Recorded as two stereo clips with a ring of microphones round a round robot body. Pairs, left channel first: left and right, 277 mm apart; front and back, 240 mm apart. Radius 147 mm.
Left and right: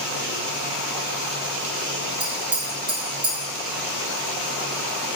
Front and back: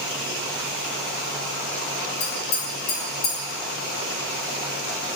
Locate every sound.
2.2 s tapping: 15° right, 2 m